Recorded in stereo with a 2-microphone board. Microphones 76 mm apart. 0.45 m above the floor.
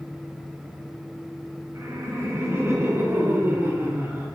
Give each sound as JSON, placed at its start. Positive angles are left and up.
{"t": 1.8, "sound": "laughter", "side_deg": -50, "distance_m": 2.5}